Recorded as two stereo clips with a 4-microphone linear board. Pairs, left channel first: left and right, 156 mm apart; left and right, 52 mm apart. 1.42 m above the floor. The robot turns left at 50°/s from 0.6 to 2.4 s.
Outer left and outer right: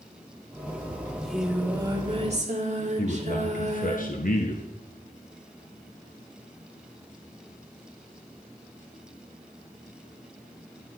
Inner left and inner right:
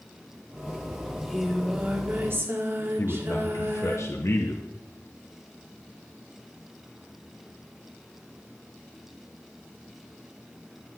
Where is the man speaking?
60° left (ahead or behind), 1.2 m.